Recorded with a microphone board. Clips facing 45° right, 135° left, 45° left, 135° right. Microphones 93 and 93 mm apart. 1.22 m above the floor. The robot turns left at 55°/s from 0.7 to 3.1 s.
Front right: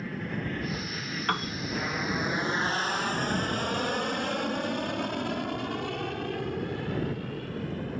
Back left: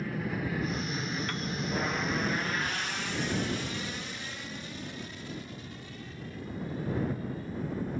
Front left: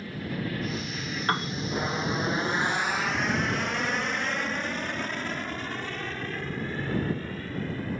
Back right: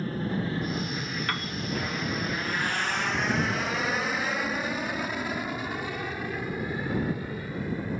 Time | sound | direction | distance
0.0 | an aircraft | 135° right | ?
1.3 | a piano | 10° right | ?